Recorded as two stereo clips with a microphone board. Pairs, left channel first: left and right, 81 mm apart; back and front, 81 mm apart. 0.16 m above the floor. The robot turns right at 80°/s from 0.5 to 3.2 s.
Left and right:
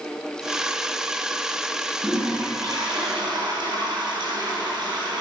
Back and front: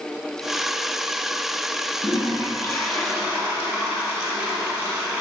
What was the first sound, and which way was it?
A toilet flushing, 160° right.